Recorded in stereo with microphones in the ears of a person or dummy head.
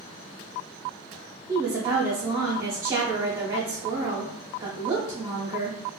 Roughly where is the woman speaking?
Right.